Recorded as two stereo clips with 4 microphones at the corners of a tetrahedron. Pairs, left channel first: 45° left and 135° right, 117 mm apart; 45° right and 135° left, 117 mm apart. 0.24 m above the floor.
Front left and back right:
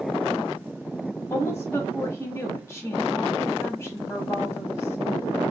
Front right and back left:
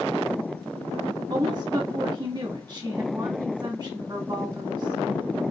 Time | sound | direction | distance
1.3 | a woman speaking | 105° left | 1.5 m